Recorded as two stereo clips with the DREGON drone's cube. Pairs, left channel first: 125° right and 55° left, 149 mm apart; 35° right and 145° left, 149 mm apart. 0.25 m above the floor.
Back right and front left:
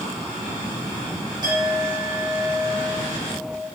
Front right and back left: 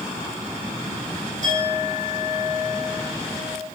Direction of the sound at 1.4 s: 115° left.